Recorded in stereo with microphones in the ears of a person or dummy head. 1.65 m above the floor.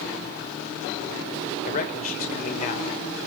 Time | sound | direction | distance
1.6 | a man speaking | 50° left (ahead or behind) | 1.4 m